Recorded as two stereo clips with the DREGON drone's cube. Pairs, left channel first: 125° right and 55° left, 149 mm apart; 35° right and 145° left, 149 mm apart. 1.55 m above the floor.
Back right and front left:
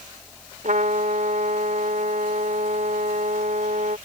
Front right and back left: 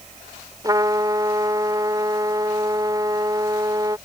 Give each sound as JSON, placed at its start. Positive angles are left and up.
{"t": 0.6, "sound": "a trumpet", "azimuth_deg": 85}